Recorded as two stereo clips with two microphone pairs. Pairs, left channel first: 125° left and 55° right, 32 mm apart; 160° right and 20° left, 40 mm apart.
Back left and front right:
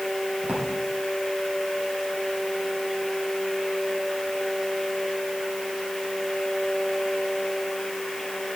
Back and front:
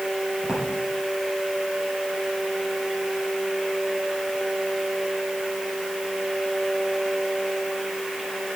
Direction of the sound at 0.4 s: 50° right.